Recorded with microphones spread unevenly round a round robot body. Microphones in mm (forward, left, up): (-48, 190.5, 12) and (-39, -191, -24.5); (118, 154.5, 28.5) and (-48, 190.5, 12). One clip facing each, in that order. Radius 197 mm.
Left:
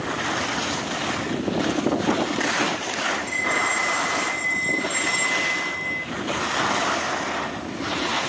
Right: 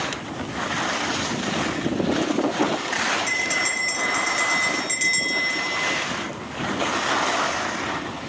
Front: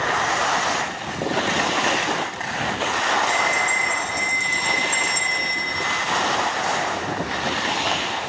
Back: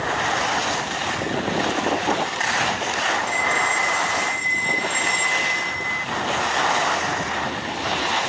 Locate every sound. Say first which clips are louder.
3.3 s a bell: left 2 dB, front 1 dB; 115° right, 6.5 m